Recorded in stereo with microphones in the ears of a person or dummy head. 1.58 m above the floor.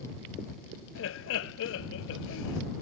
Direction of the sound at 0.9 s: 70° left (ahead or behind).